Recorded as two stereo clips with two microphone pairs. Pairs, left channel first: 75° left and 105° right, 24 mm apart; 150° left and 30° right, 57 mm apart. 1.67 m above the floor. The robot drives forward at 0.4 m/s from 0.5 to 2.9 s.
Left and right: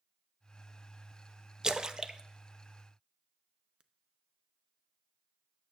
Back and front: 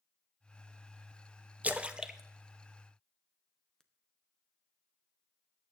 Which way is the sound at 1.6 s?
70° right.